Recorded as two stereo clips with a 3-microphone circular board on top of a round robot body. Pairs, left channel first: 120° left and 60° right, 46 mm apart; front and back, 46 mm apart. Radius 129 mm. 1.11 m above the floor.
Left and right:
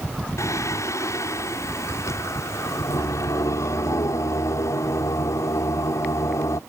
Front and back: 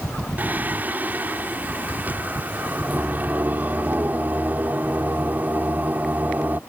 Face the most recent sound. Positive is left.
turn(degrees=125)